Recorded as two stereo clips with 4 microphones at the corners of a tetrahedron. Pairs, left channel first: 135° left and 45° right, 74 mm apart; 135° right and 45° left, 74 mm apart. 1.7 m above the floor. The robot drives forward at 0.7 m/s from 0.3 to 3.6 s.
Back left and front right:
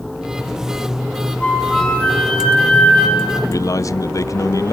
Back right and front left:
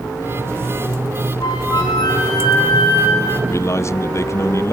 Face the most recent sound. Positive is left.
turn(degrees=175)